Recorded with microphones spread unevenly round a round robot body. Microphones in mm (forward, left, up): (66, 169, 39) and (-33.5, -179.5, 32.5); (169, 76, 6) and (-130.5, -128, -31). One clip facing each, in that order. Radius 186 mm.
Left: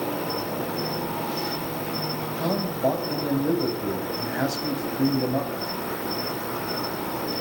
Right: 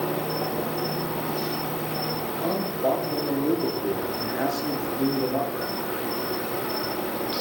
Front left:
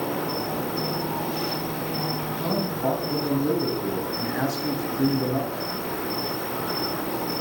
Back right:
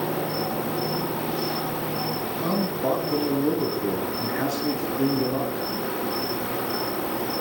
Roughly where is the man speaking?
Left.